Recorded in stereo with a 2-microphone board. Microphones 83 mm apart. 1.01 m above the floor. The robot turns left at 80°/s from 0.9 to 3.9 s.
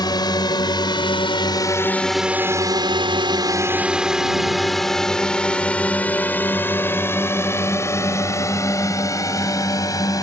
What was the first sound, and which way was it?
A drone, 55° left (ahead or behind).